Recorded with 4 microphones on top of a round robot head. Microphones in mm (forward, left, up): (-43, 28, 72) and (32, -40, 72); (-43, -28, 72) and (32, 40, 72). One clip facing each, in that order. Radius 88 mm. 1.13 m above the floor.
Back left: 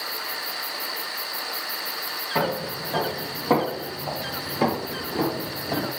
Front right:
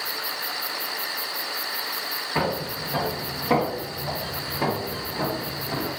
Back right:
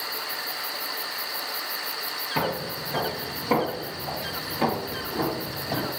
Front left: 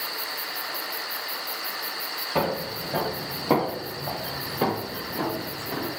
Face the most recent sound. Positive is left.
turn(degrees=165)